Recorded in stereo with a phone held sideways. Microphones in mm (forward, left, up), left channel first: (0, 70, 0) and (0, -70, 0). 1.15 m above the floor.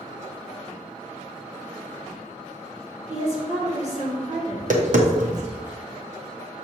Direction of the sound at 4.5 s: 65° right (ahead or behind).